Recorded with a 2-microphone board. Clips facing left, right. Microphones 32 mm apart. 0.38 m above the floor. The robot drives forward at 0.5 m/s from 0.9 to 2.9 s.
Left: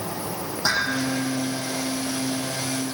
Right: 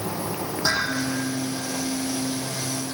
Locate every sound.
0.6 s dishes clattering: 5° left (ahead or behind), 8.5 m